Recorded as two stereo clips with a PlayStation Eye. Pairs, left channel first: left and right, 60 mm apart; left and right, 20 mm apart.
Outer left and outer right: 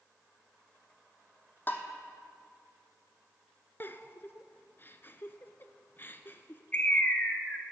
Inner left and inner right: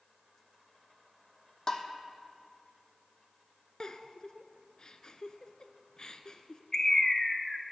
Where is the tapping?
30° left (ahead or behind), 0.9 m.